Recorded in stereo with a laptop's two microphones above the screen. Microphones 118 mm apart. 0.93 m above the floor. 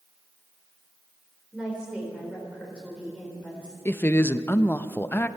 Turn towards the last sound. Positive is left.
turn(degrees=20)  # may be behind; listen again after turning